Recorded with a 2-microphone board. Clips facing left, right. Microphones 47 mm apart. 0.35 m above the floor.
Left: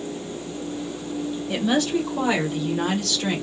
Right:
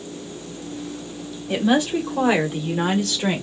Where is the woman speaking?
15° right (ahead or behind), 1.3 m; by 3.4 s 25° right (ahead or behind), 1.1 m.